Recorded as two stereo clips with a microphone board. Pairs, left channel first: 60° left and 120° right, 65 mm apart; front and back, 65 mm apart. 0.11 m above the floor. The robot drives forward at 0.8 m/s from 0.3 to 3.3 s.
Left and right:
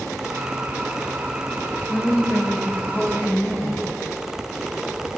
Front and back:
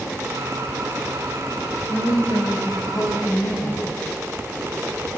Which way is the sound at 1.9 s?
5° right.